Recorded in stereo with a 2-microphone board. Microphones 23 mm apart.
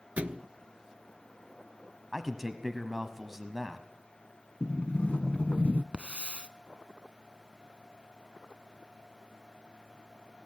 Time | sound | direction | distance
0.2 | a thud | 75° right (ahead or behind) | 0.6 m
2.1 | a man speaking | 10° right (ahead or behind) | 1.1 m
4.6 | a sliding door | 60° left (ahead or behind) | 0.5 m
5.9 | a hiss | 55° right (ahead or behind) | 0.8 m